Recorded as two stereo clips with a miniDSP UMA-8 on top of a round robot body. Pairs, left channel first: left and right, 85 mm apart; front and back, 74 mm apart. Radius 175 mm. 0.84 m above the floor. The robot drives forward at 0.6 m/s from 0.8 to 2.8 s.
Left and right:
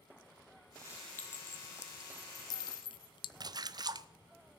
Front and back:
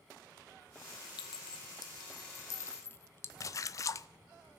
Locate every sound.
1.2 s a clink: 20° left, 1.3 m; by 3.3 s 60° left, 0.5 m
3.4 s a splash: 50° right, 0.5 m